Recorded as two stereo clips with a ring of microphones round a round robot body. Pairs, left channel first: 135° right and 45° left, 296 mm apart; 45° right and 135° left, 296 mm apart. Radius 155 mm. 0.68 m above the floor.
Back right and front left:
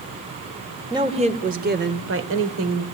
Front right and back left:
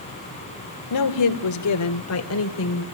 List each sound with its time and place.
0.9 s a woman speaking: 30° right, 2.5 m; by 2.9 s 5° left, 3.5 m